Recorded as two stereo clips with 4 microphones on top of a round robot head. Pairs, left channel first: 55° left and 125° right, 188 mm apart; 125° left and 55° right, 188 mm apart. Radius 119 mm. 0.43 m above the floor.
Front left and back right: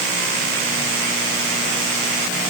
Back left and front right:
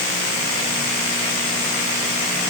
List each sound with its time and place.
Only background noise.